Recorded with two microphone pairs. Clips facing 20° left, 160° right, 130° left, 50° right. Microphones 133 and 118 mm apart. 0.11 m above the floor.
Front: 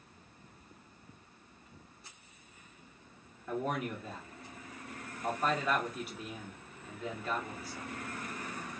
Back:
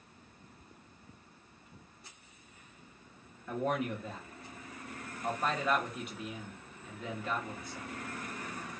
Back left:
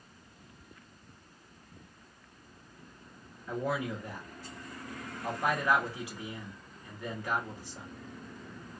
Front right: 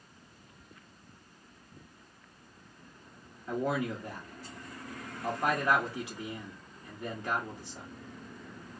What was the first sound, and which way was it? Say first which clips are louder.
A man speaking: back 2 dB, front right 2 dB; 50° right.